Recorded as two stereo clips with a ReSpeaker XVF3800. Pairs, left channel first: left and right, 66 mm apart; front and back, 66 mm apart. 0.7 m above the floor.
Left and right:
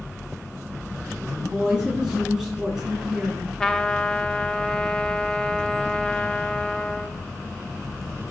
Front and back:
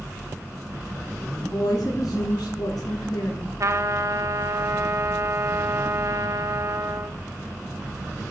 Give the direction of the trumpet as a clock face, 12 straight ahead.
7 o'clock.